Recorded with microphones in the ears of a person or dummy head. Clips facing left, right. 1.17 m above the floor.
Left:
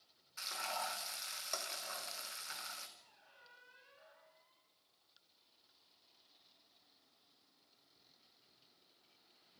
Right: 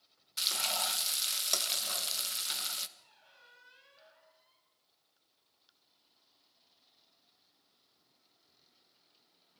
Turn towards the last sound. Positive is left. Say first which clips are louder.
# right 1 dB
turn(degrees=-45)  # may be behind; listen again after turning